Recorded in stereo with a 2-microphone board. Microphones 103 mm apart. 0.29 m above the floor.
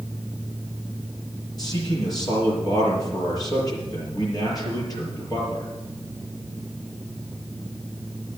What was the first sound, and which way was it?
A man speaking, 40° left (ahead or behind).